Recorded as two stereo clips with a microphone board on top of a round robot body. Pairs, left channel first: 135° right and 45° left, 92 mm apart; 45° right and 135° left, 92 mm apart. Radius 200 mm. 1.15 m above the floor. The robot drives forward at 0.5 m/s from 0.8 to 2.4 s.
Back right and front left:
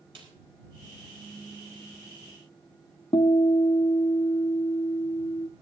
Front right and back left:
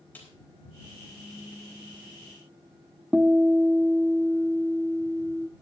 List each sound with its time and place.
0.1 s a snare drum: 25° left, 5 m
3.1 s a guitar: 145° right, 1.0 m